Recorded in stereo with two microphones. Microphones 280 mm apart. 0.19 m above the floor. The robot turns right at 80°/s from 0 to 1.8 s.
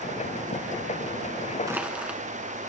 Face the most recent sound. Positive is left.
turn(degrees=-5)  # may be behind; listen again after turning